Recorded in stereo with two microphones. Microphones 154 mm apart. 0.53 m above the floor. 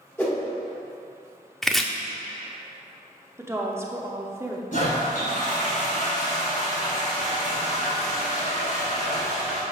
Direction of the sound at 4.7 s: 60° left (ahead or behind).